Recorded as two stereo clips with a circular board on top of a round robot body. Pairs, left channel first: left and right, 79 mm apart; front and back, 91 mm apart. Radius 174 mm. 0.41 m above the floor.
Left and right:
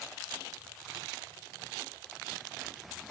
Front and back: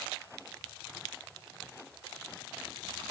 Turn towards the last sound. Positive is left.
No sound to turn to.